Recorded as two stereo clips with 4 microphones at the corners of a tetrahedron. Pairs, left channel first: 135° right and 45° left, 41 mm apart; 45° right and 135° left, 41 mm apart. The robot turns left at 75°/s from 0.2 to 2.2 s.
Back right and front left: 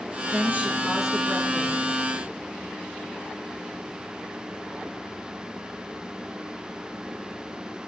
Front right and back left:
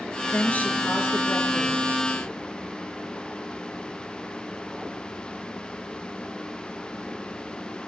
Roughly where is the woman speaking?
Ahead.